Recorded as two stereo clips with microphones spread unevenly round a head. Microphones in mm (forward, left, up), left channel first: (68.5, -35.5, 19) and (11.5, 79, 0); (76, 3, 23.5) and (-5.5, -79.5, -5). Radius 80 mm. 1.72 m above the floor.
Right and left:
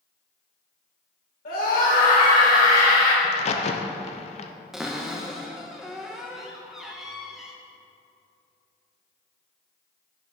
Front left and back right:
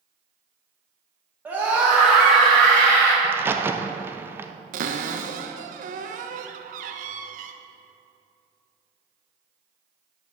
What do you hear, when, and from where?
1.4 s a scream: 55° right, 2.5 m; by 3.1 s 25° right, 4 m
3.2 s a crack: 55° right, 0.6 m
4.7 s a cupboard door: 150° right, 0.5 m